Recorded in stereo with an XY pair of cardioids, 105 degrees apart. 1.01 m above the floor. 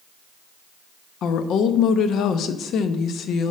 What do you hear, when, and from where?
1.2 s a woman speaking: 70° left, 0.8 m